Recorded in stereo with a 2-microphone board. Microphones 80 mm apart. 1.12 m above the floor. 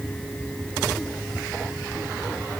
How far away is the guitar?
No guitar in this recording.